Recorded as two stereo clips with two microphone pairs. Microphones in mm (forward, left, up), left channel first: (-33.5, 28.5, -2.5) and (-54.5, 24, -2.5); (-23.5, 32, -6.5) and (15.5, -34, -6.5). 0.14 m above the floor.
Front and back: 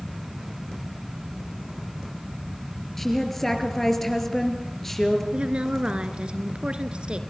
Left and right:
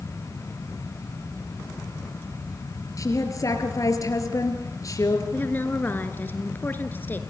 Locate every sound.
3.0 s a woman speaking: 85° left, 3 m
5.3 s a woman speaking: 175° left, 1.9 m